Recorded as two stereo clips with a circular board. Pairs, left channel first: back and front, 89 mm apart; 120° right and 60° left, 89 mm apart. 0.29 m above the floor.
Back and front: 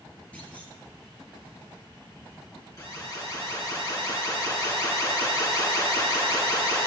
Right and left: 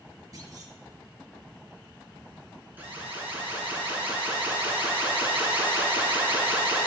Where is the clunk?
105° left, 2.5 m.